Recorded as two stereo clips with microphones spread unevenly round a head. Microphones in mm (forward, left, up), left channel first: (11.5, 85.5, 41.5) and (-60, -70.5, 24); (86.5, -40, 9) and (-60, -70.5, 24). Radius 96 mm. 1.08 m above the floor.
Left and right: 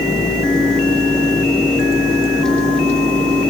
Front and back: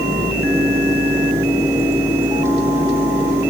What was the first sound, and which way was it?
Only background noise.